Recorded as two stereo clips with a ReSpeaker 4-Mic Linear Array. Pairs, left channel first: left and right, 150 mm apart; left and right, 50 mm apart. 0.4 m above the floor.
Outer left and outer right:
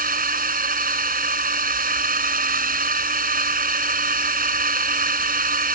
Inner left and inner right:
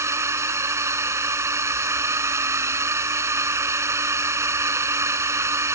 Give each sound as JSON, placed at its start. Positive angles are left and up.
{"t": 0.0, "sound": "a drone", "side_deg": -70}